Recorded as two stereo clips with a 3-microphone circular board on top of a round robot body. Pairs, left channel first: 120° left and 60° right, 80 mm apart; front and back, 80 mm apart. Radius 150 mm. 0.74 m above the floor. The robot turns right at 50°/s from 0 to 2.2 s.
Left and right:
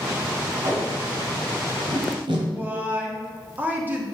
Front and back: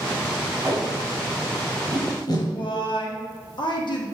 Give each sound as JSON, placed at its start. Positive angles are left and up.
{"t": 0.6, "sound": "tape being pulled", "azimuth_deg": -120, "distance_m": 1.6}
{"t": 2.5, "sound": "a woman speaking", "azimuth_deg": 5, "distance_m": 2.0}